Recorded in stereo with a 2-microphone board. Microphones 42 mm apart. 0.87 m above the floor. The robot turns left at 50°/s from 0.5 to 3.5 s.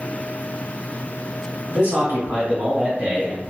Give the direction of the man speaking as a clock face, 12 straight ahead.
2 o'clock.